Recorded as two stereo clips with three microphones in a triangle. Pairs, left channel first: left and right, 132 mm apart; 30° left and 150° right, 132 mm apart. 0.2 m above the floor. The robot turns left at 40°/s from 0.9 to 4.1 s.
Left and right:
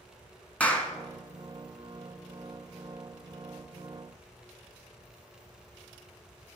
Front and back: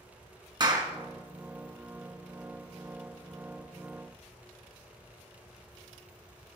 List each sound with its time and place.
0.6 s a clap: 165° left, 1.9 m